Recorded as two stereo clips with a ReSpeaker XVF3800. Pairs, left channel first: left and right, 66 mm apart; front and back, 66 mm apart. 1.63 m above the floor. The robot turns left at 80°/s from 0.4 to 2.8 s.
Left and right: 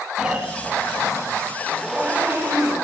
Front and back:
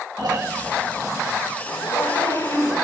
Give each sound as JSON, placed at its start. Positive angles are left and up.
{"t": 0.2, "sound": "snoring", "azimuth_deg": -165, "distance_m": 2.5}
{"t": 1.6, "sound": "a zipper", "azimuth_deg": 15, "distance_m": 5.5}